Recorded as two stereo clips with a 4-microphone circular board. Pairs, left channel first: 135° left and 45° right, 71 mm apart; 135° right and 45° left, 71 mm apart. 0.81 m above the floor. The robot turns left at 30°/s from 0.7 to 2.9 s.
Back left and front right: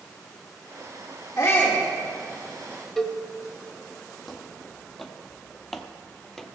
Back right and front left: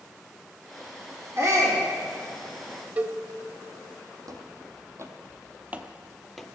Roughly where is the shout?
Left.